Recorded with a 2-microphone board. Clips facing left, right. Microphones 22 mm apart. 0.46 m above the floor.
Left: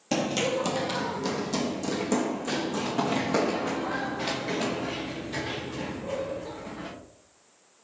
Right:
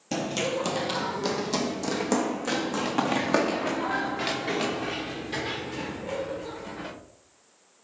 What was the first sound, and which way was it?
Running footsteps, 20° left (ahead or behind).